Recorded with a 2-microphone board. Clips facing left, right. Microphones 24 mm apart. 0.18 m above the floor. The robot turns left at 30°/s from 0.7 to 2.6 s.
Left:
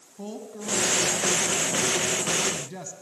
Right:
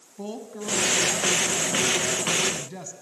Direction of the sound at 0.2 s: 20° right (ahead or behind).